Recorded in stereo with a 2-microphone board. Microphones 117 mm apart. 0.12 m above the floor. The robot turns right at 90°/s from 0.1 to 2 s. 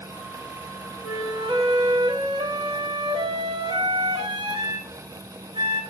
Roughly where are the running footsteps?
I don't hear running footsteps.